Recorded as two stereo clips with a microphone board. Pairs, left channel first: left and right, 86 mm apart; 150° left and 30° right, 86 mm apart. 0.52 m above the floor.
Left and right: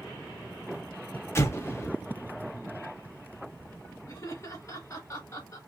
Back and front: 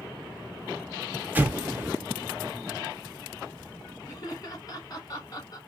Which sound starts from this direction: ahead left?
An explosion, at 1.4 s.